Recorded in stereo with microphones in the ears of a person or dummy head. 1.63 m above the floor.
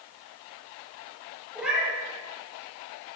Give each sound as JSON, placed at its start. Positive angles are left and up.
{"t": 1.6, "sound": "a cat meowing", "side_deg": -5, "distance_m": 3.0}